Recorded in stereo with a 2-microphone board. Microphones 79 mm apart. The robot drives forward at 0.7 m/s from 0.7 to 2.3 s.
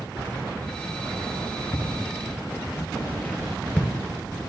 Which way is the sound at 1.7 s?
50° left (ahead or behind).